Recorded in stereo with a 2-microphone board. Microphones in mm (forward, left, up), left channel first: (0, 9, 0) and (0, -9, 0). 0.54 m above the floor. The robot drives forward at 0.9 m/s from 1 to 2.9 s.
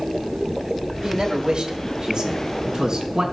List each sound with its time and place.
1.0 s a man speaking: 60° right (ahead or behind), 2.0 m; by 3.2 s 40° right (ahead or behind), 3 m